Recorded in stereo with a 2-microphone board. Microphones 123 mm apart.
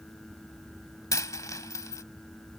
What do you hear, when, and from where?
1.1 s a dropped coin: 25° left (ahead or behind)